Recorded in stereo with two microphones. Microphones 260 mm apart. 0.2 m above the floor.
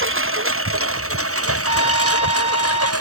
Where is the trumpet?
25° right (ahead or behind).